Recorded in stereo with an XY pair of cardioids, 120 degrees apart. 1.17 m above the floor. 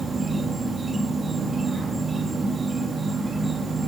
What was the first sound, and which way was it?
An insect, 25° right.